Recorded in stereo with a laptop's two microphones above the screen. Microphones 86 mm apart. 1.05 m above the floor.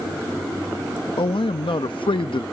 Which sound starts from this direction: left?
A man speaking, at 1.2 s.